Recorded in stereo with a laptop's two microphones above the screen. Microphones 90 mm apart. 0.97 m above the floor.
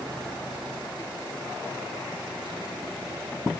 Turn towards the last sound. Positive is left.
No sound to turn to.